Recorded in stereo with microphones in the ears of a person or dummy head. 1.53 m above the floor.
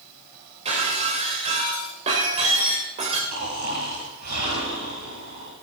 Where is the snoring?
50° right (ahead or behind), 6.5 m.